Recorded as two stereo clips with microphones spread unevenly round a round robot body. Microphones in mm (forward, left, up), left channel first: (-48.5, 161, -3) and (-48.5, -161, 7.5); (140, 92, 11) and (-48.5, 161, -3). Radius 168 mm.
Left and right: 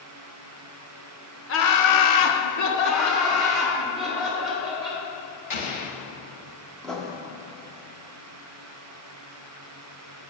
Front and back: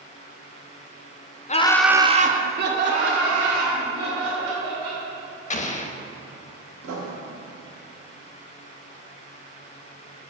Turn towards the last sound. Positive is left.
turn(degrees=180)